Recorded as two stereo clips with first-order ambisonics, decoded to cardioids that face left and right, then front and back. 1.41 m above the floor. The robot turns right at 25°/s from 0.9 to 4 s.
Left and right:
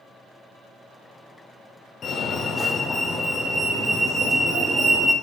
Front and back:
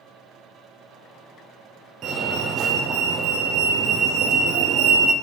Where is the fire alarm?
145° left, 0.9 m; by 5.1 s 170° right, 0.9 m.